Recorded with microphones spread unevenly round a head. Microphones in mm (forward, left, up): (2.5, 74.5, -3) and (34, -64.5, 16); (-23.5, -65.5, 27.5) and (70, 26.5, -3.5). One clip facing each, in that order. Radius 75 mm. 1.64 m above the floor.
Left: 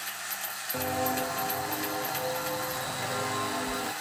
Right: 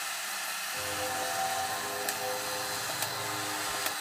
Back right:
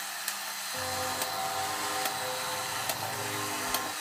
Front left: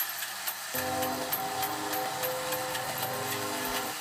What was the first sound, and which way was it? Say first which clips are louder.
Footsteps: left 7 dB, front left 4 dB; 110° left.